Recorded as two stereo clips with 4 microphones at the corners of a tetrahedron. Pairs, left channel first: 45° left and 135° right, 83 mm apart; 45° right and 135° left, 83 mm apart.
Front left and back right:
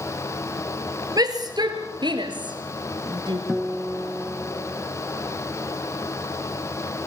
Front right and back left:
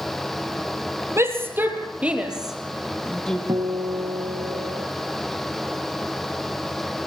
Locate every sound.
1.2 s a shout: 170° right, 4 m; by 3.4 s 125° right, 4 m
3.5 s a guitar: 140° left, 3 m